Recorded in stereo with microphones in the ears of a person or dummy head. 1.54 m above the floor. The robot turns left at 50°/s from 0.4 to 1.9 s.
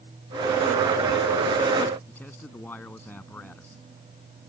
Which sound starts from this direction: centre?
A man speaking, at 2.1 s.